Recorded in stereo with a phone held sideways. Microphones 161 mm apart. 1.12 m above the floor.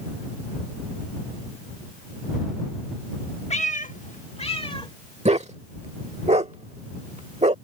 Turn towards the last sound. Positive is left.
turn(degrees=-45)  # may be behind; listen again after turning